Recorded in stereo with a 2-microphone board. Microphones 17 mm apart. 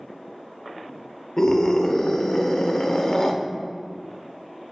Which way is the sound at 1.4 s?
45° left (ahead or behind).